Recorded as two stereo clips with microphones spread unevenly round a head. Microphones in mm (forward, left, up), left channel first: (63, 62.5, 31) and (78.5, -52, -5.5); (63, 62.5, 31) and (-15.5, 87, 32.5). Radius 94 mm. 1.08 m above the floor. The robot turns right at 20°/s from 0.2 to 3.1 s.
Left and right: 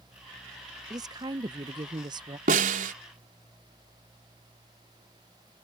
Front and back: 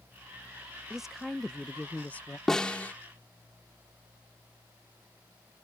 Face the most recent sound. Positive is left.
turn(degrees=-95)